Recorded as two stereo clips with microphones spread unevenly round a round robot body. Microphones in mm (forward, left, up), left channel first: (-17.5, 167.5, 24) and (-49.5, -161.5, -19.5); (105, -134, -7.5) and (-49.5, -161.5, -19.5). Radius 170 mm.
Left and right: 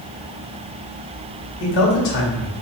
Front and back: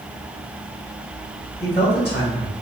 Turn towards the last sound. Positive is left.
turn(degrees=80)